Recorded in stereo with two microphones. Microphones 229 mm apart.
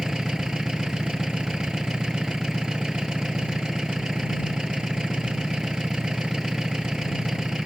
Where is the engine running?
5° right (ahead or behind).